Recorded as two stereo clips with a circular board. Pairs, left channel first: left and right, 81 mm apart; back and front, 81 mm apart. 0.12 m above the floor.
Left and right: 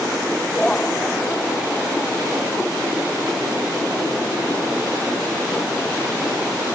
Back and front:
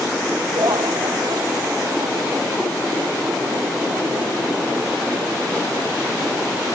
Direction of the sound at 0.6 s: 10° left.